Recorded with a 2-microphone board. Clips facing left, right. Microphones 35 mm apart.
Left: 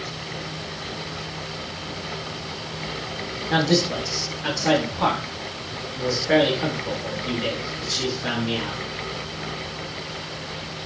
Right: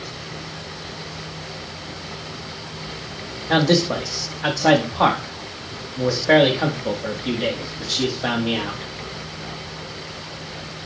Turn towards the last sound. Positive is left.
turn(degrees=-65)  # may be behind; listen again after turning